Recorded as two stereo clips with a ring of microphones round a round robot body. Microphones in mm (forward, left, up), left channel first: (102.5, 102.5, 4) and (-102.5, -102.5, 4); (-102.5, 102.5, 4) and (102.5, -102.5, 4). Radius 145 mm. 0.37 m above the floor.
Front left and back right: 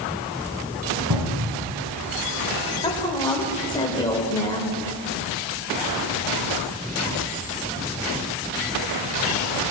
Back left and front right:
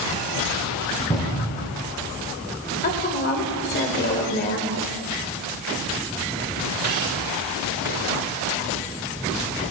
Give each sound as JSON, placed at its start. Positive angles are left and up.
{"t": 1.1, "sound": "a cupboard door", "azimuth_deg": -160, "distance_m": 2.0}
{"t": 2.8, "sound": "a woman speaking", "azimuth_deg": 110, "distance_m": 1.4}